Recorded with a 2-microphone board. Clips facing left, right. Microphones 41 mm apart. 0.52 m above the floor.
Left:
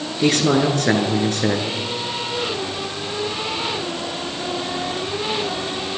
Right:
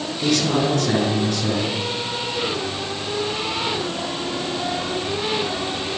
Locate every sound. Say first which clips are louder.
0.2 s a man speaking: left 3 dB; 50° left (ahead or behind), 7.5 m